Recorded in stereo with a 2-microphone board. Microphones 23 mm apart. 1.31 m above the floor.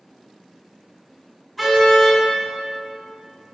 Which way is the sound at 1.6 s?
Centre (ahead or behind).